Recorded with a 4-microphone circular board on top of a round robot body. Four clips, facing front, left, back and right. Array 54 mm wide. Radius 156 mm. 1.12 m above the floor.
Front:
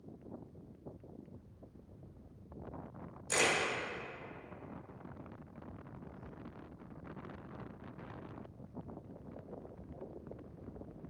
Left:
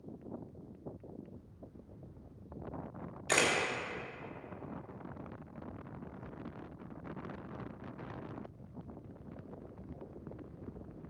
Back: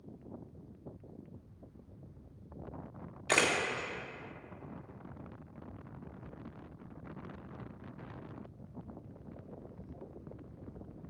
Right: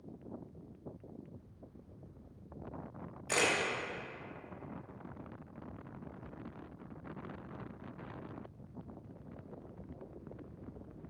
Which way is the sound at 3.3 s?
165° left.